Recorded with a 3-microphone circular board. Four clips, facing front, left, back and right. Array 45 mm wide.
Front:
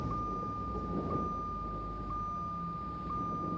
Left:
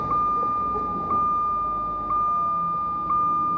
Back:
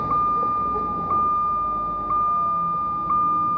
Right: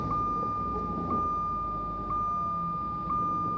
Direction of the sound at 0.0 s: 150° left.